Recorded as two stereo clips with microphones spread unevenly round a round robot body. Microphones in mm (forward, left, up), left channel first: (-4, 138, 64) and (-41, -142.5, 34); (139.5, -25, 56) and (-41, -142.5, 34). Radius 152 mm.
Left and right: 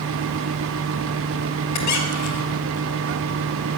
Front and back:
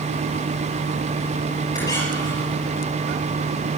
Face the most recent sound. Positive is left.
turn(degrees=110)